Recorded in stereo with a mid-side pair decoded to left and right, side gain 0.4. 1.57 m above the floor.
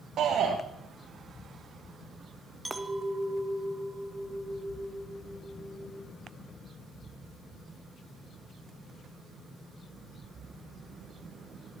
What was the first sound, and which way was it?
A shout, 65° right.